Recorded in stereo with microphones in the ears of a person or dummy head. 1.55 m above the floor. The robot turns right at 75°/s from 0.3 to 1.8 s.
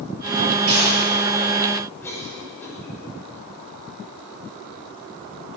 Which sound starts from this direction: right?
A gunshot, at 0.7 s.